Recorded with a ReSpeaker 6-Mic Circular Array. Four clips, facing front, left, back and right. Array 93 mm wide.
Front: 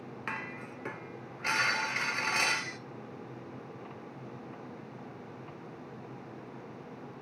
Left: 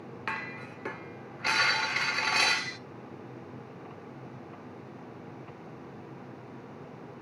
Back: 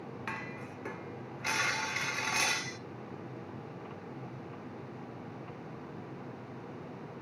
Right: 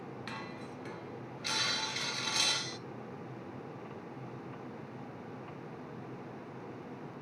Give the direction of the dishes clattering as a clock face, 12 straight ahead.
10 o'clock.